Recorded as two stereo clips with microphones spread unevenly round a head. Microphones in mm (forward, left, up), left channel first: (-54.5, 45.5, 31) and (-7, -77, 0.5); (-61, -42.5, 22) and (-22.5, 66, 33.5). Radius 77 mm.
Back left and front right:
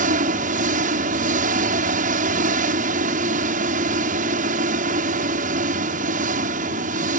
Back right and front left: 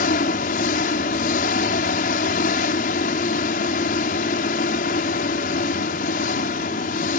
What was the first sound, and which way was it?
An engine running, 95° right.